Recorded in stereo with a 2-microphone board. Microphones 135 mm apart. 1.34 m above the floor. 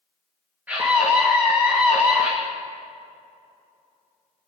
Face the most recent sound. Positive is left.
turn(degrees=-15)  # may be behind; listen again after turning